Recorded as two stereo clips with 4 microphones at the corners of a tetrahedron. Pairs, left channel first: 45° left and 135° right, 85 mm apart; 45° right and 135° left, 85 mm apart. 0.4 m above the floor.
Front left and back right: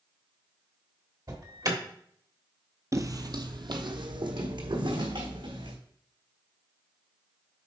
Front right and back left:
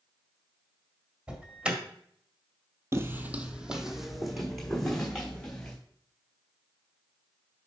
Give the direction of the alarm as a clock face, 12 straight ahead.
5 o'clock.